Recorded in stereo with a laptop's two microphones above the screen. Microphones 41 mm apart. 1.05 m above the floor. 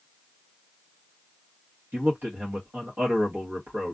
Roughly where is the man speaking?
Right.